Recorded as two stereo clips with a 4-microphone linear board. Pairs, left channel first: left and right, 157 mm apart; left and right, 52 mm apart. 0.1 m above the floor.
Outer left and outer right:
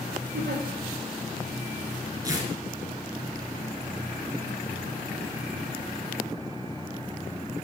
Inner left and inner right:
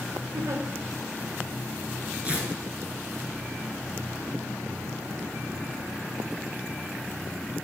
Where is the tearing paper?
25° right (ahead or behind), 1.5 m.